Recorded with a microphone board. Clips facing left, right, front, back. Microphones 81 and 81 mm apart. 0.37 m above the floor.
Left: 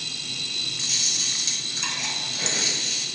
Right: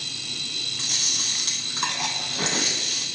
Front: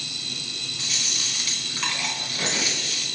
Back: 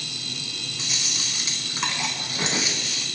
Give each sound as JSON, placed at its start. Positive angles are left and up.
{"t": 0.8, "sound": "chewing", "azimuth_deg": -110, "distance_m": 2.5}